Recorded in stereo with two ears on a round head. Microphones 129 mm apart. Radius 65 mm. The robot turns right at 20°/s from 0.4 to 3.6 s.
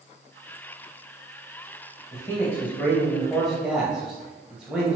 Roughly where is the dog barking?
I don't hear a dog barking.